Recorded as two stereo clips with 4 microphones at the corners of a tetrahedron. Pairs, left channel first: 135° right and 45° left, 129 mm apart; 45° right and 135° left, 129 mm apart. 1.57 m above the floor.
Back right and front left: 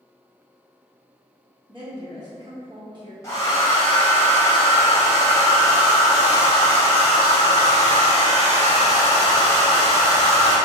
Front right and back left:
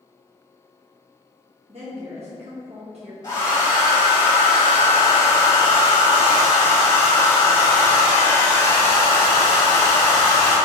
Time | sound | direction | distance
1.7 | a woman speaking | 100° left | 1.0 m
3.2 | a hair dryer | 85° right | 1.8 m